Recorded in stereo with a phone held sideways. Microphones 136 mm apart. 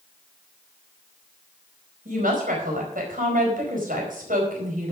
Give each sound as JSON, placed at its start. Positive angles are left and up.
{"t": 2.0, "sound": "a woman speaking", "side_deg": -85, "distance_m": 4.5}